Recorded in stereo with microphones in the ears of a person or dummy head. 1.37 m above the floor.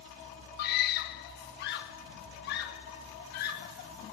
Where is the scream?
65° left (ahead or behind), 1.0 m.